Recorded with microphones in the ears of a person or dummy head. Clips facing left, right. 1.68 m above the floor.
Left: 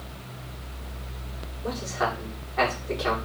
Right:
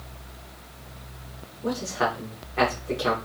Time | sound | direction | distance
1.6 | a man speaking | 35° right (ahead or behind) | 6 m